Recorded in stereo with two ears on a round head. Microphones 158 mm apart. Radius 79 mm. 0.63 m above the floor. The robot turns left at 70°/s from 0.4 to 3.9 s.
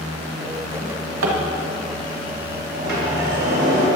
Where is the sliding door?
55° right, 3.5 m; by 3.9 s 135° right, 3.5 m.